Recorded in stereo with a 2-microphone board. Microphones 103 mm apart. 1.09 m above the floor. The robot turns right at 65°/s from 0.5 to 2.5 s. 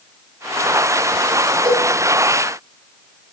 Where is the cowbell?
50° right (ahead or behind), 4.5 m; by 1.9 s 70° right (ahead or behind), 4.5 m.